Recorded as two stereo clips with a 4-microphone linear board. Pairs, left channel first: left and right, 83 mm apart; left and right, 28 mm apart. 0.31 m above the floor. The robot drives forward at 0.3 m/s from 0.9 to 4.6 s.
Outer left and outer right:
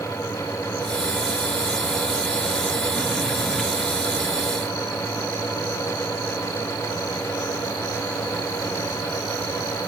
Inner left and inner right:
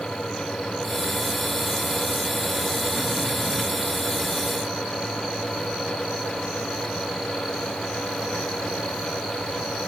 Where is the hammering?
No hammering in this recording.